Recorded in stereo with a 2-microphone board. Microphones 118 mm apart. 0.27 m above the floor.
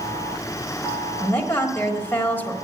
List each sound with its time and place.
1.2 s a woman speaking: 15° left (ahead or behind), 1.4 m